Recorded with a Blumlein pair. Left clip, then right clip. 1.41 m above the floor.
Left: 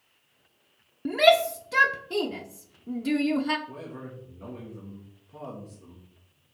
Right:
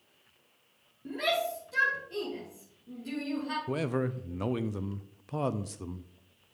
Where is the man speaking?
40° right, 0.5 m.